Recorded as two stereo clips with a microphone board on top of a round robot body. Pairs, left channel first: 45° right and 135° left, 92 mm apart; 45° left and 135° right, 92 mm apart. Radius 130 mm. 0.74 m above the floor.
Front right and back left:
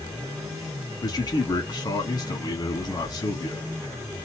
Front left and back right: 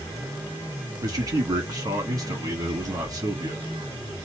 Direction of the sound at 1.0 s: 85° right.